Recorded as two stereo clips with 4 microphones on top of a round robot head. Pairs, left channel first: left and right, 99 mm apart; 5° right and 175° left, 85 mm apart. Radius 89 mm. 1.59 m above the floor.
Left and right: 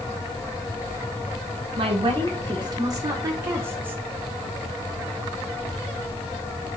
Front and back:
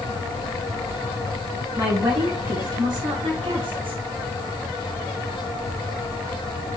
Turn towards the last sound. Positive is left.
turn(degrees=-165)